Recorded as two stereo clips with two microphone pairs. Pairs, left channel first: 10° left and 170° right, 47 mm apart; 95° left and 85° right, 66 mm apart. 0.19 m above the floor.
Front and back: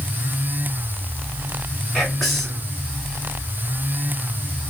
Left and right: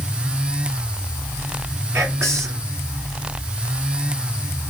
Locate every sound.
1.9 s whispering: 75° right, 1.9 m